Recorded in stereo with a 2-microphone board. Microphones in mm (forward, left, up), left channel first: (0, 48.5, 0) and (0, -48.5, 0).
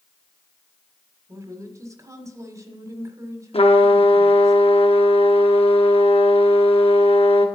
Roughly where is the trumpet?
Left.